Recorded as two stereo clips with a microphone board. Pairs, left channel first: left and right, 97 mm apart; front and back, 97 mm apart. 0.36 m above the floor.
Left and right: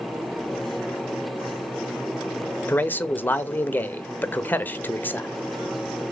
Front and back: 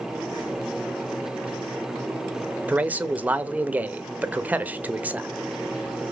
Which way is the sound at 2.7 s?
130° left.